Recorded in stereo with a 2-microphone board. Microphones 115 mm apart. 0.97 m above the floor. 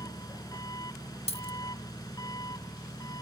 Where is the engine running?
35° left (ahead or behind).